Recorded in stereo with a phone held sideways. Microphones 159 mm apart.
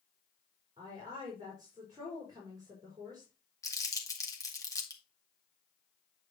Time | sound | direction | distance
0.8 | a woman speaking | 25° right (ahead or behind) | 4 m
3.6 | crumpling | 20° left (ahead or behind) | 2 m